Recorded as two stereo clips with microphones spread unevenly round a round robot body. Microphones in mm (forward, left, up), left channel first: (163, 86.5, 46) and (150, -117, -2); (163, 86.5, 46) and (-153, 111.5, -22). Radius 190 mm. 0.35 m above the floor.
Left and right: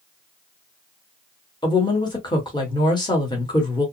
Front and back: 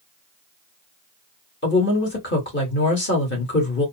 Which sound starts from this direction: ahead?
A woman speaking, at 1.6 s.